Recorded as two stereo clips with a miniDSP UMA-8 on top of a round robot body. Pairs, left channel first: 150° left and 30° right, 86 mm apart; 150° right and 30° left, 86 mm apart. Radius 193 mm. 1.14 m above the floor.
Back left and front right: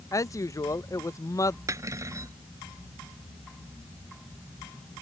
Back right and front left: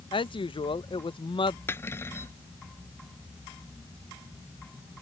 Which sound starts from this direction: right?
Cutlery clinking, at 1.7 s.